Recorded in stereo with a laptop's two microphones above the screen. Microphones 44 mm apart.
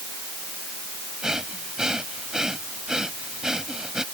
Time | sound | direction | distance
1.2 | breathing | 15° right (ahead or behind) | ?